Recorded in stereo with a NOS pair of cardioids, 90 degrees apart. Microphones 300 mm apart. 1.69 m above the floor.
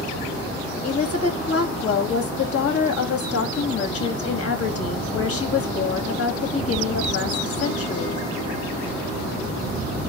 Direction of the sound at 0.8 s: 50° left.